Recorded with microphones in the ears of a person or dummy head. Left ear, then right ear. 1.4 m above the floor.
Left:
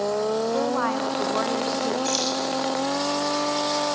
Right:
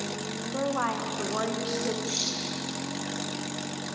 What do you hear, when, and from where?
0.5 s a woman speaking: 15° left (ahead or behind), 1.6 m
2.0 s keys jangling: 80° left, 8 m